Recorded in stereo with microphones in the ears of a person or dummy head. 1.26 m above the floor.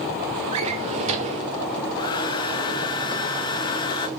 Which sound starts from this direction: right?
A drawer, at 0.5 s.